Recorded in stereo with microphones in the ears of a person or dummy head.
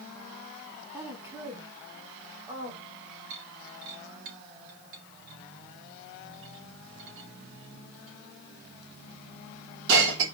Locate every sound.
0.9 s a woman speaking: 10° right (ahead or behind), 2 m; by 2.8 s 30° right (ahead or behind), 3 m
3.3 s breaking glass: 75° right (ahead or behind), 3.5 m